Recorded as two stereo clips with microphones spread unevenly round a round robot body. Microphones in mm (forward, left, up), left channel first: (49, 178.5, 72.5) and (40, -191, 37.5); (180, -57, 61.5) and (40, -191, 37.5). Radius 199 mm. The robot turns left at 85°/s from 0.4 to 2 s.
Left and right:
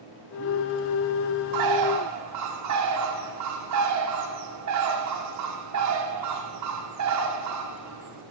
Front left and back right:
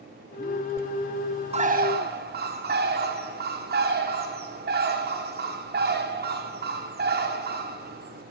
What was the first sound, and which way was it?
A bird, 85° right.